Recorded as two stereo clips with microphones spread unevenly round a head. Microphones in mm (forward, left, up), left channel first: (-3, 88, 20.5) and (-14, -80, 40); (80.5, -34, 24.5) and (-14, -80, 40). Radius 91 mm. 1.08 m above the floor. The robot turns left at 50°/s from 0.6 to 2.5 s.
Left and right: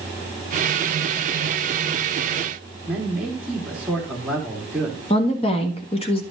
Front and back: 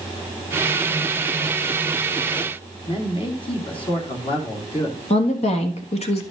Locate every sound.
2.9 s a man speaking: 10° right, 2.5 m
5.1 s a woman speaking: 30° left, 1.7 m